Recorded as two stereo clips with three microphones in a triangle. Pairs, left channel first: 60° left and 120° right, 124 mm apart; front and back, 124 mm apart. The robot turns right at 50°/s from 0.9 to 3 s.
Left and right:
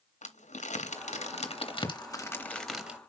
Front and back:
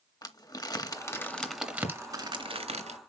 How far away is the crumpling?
About 2 m.